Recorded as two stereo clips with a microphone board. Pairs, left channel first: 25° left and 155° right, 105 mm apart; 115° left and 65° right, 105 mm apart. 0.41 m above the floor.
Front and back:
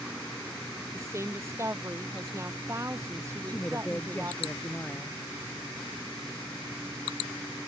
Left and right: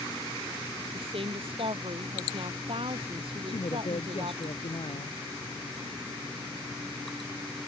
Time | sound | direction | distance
0.9 | a woman speaking | 95° right | ?
3.5 | a man speaking | 95° left | ?